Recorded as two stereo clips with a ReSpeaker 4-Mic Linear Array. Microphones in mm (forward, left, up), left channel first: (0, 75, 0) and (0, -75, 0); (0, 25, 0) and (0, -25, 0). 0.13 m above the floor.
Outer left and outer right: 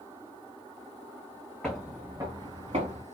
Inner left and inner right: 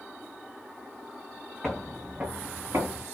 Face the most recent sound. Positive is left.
turn(degrees=-45)  # may be behind; listen again after turning